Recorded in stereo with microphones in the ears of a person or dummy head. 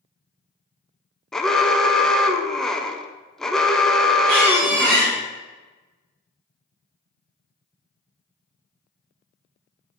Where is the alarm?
Centre (ahead or behind), 0.7 m.